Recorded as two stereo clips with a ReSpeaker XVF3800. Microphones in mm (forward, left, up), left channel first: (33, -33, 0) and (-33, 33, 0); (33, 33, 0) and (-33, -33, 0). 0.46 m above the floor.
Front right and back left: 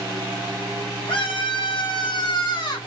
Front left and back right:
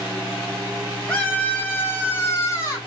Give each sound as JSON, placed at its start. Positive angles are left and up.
{"t": 1.1, "sound": "a scream", "azimuth_deg": -30, "distance_m": 3.0}